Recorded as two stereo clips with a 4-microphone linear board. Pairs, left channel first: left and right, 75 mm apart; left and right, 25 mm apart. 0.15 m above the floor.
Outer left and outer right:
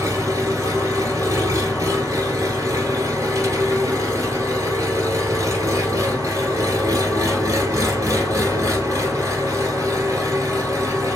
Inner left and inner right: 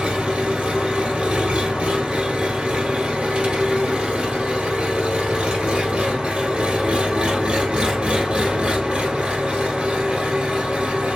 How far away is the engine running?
About 1.5 m.